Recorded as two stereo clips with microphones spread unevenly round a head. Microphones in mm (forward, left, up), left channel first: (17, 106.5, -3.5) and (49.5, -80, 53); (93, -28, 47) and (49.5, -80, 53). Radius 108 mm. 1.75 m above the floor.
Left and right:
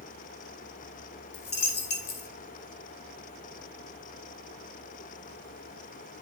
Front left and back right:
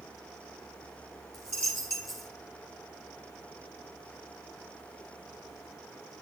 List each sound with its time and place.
1.3 s a dropped coin: 95° left, 1.4 m